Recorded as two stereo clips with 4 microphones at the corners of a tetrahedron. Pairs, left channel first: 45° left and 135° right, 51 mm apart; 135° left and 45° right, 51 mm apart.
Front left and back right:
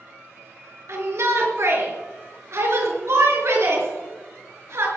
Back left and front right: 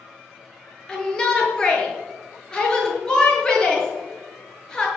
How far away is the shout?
About 6 m.